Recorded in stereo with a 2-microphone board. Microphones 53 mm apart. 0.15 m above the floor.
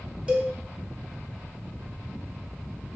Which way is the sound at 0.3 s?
25° right (ahead or behind).